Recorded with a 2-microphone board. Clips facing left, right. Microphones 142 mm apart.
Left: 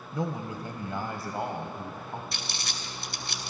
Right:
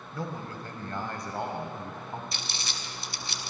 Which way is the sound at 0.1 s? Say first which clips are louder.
Left 4 dB; 20° left (ahead or behind).